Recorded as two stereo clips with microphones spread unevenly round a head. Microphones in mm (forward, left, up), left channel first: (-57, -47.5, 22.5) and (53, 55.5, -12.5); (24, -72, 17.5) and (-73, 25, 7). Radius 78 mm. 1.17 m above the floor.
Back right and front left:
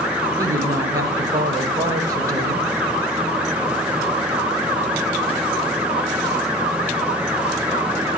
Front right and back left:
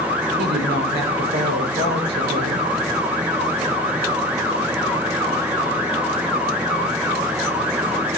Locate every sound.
0.4 s a woman speaking: 115° left, 4 m